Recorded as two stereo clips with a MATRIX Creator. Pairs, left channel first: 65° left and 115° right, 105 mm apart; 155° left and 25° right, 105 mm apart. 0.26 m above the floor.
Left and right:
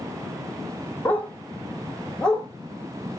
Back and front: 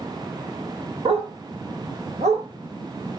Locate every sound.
1.1 s a dog barking: 5° right, 4.5 m; by 2.5 s 15° right, 5.5 m